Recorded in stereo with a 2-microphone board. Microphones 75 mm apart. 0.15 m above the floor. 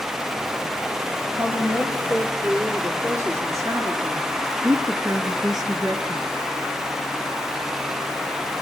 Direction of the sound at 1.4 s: 30° right (ahead or behind).